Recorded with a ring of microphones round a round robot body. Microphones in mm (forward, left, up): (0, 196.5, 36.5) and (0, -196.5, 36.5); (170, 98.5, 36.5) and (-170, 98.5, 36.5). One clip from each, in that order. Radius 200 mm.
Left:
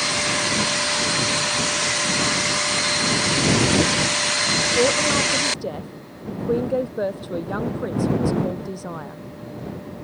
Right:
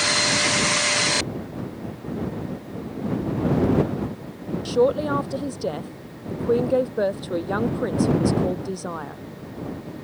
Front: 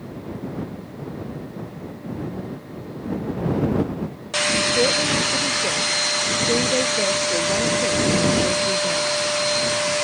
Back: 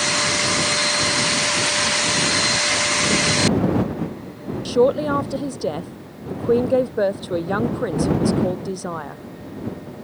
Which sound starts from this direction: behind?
A man speaking, at 4.7 s.